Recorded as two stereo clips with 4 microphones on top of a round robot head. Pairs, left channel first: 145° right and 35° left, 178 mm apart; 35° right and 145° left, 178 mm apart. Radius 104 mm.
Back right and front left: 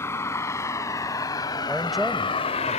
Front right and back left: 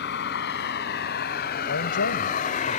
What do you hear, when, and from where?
0.0 s a vehicle: 70° right; by 2.8 s 90° right
1.7 s a man speaking: 55° right